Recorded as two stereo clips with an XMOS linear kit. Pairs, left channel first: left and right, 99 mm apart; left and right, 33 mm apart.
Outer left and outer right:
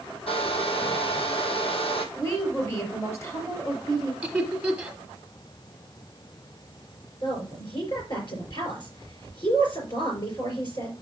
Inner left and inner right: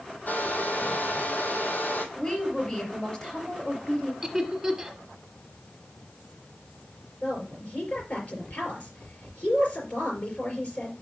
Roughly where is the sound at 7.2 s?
Left.